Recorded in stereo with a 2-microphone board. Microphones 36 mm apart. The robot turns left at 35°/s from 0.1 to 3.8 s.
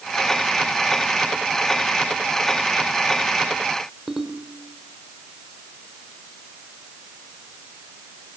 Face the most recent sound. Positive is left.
turn(degrees=-10)  # may be behind; listen again after turning